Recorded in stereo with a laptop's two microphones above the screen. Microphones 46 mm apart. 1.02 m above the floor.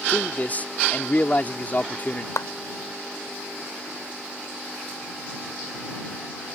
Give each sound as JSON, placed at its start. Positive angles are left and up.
{"t": 0.1, "sound": "a man speaking", "side_deg": 35}
{"t": 2.4, "sound": "a clap", "side_deg": 85}